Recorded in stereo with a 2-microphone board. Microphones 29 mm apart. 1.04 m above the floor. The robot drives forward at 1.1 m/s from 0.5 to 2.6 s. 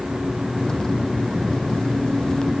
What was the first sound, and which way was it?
Only background noise.